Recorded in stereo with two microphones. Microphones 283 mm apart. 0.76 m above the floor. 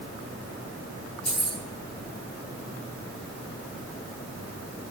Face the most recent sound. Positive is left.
turn(degrees=-65)  # may be behind; listen again after turning